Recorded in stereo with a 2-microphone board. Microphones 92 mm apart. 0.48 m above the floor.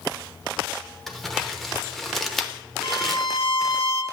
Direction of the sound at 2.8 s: 75° left (ahead or behind).